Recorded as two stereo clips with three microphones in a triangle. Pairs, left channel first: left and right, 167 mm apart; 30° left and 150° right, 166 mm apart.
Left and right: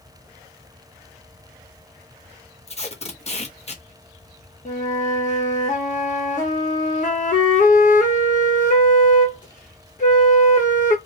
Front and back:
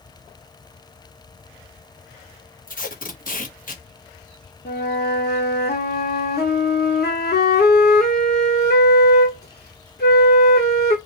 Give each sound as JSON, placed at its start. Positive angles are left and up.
{"t": 2.7, "sound": "tape being pulled", "azimuth_deg": 50, "distance_m": 0.9}
{"t": 4.7, "sound": "a flute", "azimuth_deg": 50, "distance_m": 1.0}